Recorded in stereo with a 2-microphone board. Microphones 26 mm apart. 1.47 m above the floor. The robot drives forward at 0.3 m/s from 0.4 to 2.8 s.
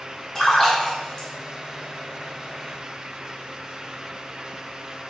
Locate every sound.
0.3 s a splash: 25° left (ahead or behind), 1.1 m